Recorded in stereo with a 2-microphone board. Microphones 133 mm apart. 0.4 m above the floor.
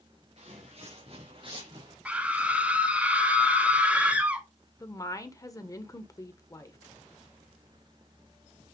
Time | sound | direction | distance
0.4 | footsteps | 55° right (ahead or behind) | 3 m
2.0 | a scream | 10° right (ahead or behind) | 1.8 m
4.8 | a woman speaking | 25° left (ahead or behind) | 1.0 m